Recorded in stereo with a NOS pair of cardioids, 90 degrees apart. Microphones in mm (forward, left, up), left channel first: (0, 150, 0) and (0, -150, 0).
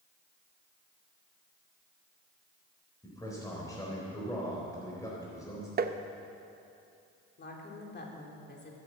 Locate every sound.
3.0 s a man speaking: 10° left, 4 m
5.8 s tapping: 35° right, 0.8 m
7.4 s a woman speaking: 35° left, 3 m